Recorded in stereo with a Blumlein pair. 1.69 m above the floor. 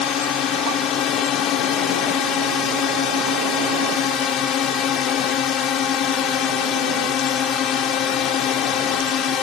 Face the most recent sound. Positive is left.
turn(degrees=30)